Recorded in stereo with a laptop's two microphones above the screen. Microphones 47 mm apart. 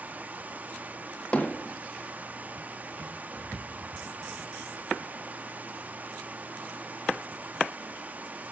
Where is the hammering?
25° left (ahead or behind), 1.5 m.